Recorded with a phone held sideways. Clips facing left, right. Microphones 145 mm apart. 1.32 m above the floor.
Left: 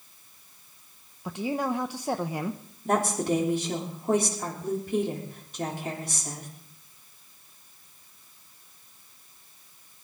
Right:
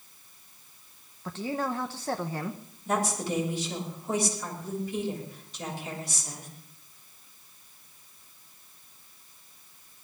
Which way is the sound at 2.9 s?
55° left (ahead or behind).